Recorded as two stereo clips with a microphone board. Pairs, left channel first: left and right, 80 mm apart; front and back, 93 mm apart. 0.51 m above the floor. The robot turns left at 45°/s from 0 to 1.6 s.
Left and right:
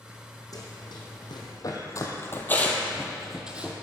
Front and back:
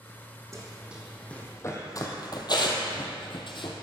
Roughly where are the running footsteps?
Behind left.